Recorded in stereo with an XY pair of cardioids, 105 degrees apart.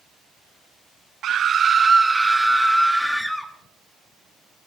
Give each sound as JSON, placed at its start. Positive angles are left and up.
{"t": 1.2, "sound": "a scream", "azimuth_deg": -65, "distance_m": 0.7}